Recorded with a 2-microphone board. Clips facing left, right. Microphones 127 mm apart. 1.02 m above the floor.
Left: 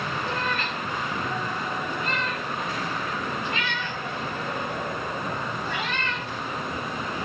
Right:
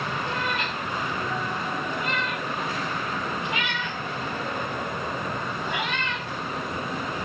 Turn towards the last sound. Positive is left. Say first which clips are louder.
# even
turn(degrees=-20)  # may be behind; listen again after turning